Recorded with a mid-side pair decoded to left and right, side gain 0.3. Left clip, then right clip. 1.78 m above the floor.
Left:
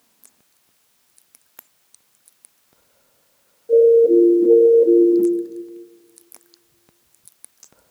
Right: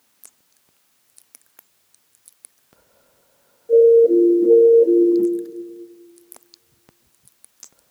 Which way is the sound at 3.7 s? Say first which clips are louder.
Even; 10° left.